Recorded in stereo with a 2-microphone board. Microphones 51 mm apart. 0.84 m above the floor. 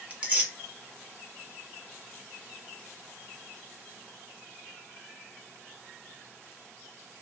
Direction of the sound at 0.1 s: 25° right (ahead or behind).